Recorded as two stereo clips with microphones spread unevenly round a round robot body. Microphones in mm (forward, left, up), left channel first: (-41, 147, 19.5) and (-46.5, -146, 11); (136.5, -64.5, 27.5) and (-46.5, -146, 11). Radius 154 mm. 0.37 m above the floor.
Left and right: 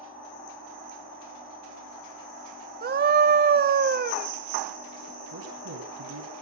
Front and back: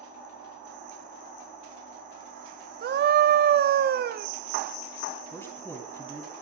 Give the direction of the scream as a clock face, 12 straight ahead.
5 o'clock.